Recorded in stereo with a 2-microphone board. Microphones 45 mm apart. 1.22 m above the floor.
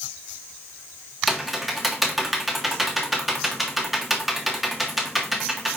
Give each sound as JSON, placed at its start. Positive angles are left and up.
{"t": 1.3, "sound": "typing on a keyboard", "side_deg": -5, "distance_m": 1.5}